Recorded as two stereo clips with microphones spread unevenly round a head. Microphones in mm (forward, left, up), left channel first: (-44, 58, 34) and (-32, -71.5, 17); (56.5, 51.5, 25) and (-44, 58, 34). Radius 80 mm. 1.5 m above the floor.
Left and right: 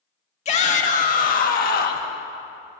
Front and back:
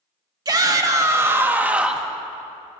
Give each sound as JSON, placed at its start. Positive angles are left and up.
{"t": 0.5, "sound": "a shout", "azimuth_deg": 130, "distance_m": 1.8}